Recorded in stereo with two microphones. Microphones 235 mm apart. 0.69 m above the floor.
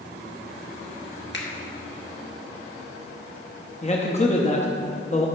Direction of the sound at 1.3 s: 50° left (ahead or behind).